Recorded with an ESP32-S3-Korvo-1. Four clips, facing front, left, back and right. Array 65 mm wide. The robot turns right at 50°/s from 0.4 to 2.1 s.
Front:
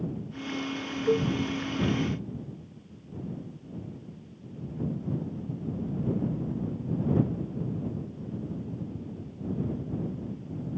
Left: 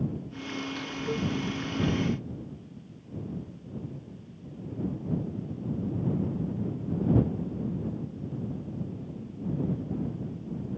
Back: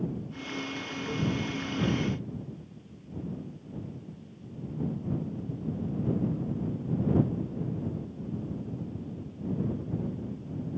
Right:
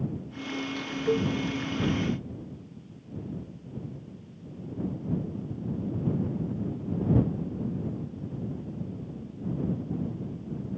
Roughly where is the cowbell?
Ahead right.